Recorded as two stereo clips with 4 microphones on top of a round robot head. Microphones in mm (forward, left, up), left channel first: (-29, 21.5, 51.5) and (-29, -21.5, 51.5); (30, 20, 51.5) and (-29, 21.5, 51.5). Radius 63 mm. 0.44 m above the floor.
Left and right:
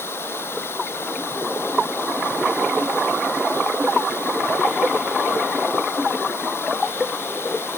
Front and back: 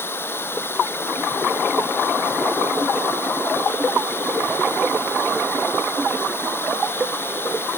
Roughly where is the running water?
Ahead left.